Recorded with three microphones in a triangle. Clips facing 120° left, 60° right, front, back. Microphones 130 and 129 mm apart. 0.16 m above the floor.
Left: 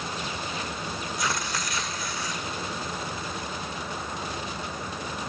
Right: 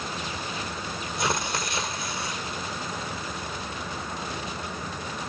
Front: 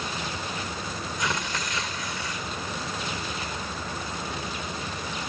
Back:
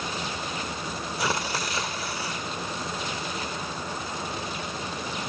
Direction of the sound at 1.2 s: 125° right.